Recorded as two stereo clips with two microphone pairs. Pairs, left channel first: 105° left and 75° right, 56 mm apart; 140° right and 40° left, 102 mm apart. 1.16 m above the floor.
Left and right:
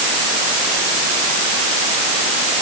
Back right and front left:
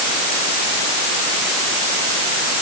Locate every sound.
Only background noise.